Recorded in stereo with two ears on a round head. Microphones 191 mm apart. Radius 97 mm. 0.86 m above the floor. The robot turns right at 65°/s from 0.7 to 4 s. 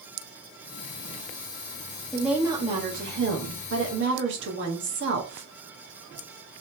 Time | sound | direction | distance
2.1 | a woman speaking | 175° left | 1.6 m